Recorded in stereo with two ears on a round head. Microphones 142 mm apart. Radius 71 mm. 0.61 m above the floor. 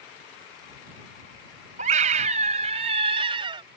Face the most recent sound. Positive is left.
turn(degrees=-30)  # may be behind; listen again after turning